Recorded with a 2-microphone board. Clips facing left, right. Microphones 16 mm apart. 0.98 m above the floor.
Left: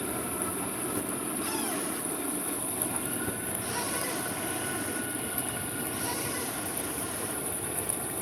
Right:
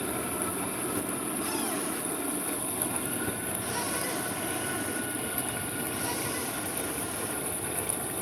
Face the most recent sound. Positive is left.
turn(degrees=0)  # may be behind; listen again after turning